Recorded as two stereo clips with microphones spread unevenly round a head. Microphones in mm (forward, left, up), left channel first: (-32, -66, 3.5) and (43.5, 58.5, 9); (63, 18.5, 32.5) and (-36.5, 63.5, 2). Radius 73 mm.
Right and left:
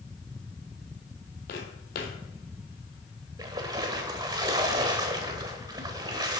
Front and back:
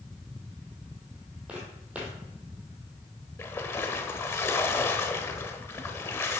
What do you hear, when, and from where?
1.5 s footsteps: 115° right, 1.8 m
3.4 s a splash: 10° left, 0.9 m